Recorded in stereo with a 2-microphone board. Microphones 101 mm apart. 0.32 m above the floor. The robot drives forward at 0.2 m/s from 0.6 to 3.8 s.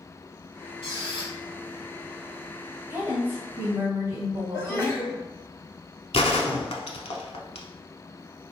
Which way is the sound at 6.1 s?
80° left.